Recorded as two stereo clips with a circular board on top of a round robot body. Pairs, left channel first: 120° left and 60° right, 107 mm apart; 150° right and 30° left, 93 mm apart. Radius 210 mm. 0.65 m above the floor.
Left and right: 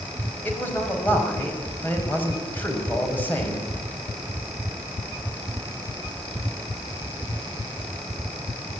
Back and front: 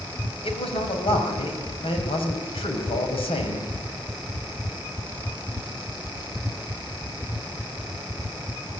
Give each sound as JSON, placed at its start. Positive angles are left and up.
{"t": 0.4, "sound": "a man speaking", "azimuth_deg": -165, "distance_m": 5.0}